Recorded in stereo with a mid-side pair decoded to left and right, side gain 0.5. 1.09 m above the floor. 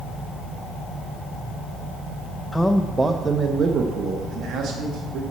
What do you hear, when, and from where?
2.5 s a man speaking: 20° left, 0.6 m; by 5.2 s 70° right, 1.9 m